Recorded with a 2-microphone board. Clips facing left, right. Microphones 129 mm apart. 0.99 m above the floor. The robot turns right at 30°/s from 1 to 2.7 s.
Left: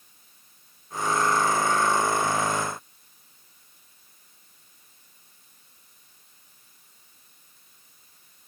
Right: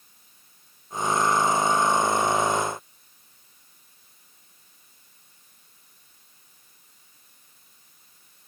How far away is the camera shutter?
No camera shutter in this recording.